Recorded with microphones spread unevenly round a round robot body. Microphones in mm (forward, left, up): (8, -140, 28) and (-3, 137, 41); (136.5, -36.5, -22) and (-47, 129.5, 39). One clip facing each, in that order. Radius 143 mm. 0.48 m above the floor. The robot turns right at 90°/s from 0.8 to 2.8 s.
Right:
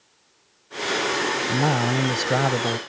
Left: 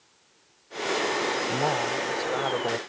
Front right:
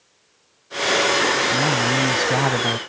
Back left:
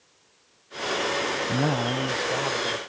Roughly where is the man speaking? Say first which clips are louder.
Right 5 dB, front right 3 dB; behind right.